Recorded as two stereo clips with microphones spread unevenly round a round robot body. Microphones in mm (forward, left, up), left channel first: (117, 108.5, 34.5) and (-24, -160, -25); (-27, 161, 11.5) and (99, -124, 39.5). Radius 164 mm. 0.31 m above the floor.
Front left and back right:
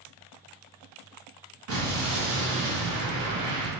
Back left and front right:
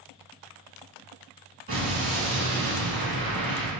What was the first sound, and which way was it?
An explosion, 140° right.